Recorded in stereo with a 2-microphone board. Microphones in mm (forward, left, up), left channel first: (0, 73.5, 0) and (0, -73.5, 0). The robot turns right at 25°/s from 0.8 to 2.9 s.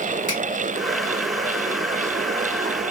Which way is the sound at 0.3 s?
55° left (ahead or behind).